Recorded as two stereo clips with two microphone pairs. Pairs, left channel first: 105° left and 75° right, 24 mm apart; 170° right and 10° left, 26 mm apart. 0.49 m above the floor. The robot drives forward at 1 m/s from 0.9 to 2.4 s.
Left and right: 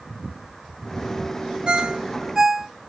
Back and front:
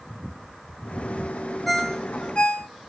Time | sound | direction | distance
1.7 | a ringtone | 75° right | 0.9 m